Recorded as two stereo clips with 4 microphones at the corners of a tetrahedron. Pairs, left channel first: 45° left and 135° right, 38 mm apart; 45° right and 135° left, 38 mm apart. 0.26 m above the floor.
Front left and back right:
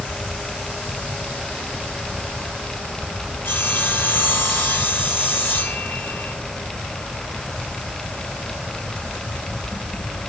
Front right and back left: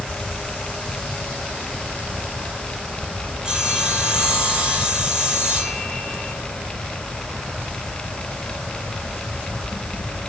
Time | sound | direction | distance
3.5 | sawing | 70° left | 6.5 m